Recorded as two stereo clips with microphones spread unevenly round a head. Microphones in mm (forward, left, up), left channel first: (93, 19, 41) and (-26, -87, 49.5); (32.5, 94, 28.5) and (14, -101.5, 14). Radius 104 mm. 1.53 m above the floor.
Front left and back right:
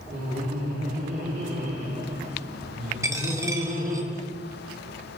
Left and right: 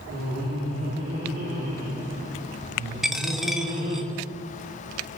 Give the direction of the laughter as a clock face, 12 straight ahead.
4 o'clock.